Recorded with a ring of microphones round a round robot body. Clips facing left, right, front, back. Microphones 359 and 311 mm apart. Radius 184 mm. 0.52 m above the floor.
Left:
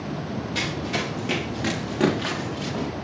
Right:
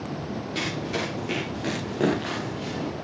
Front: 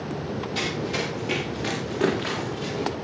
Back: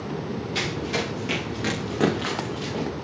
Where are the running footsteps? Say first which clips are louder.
Right 1 dB, even; 165° left, 9 m; by 2.9 s 155° left, 9.5 m.